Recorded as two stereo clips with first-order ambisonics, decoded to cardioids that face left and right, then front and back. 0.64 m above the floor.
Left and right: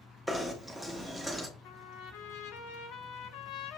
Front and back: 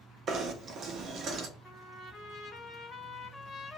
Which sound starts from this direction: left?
A trumpet, at 1.6 s.